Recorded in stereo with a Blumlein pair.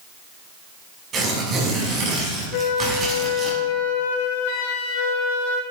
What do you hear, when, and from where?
1.1 s tearing paper: 25° right, 5.5 m
2.5 s a flute: 50° left, 1.7 m